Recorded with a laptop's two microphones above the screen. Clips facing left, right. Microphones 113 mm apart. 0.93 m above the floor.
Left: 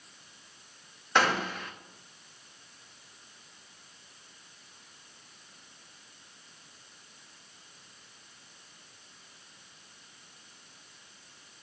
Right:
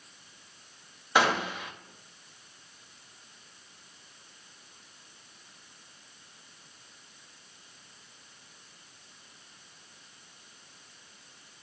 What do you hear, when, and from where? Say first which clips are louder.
1.1 s a gunshot: right 1 dB; 10° right (ahead or behind), 1.2 m